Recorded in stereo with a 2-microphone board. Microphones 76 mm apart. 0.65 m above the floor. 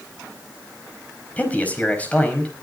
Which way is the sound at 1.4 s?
20° left (ahead or behind).